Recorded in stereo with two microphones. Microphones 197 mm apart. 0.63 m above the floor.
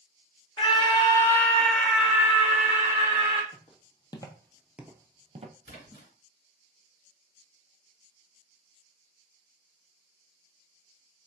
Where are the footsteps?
30° left (ahead or behind), 1.3 m; by 5.5 s 35° right (ahead or behind), 0.9 m.